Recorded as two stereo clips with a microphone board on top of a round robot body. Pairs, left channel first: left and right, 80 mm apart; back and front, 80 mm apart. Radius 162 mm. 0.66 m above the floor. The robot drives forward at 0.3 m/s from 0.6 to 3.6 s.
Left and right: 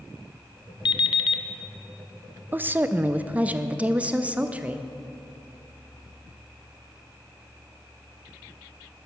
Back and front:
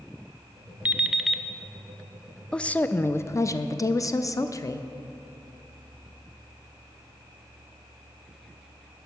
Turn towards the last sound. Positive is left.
turn(degrees=-155)